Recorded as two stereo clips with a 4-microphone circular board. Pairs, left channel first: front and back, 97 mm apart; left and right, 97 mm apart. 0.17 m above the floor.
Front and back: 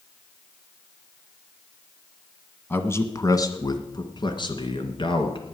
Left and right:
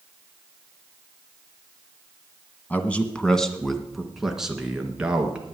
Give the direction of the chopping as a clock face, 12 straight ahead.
I don't hear chopping.